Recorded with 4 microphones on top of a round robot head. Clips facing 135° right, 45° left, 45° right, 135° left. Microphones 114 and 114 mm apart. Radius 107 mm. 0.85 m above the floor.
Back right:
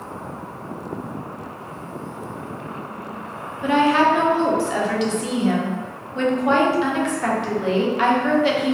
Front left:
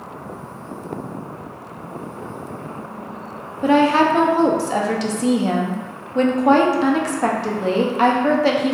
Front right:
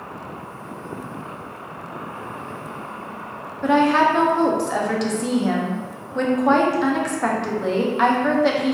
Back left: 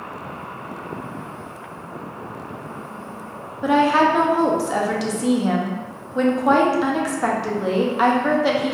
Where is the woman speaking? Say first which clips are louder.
Front left 2 dB, even; 50° left, 0.6 m.